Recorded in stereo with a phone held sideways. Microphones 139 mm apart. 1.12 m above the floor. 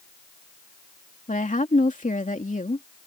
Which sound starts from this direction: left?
A woman speaking, at 1.3 s.